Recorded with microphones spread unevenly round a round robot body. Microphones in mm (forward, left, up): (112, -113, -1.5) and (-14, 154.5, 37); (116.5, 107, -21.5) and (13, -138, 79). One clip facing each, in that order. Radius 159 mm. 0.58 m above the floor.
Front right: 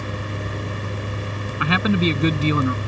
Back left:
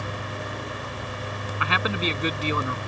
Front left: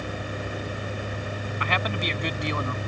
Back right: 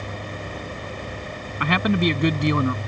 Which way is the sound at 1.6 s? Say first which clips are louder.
Front right 9 dB, back right 11 dB; 85° right.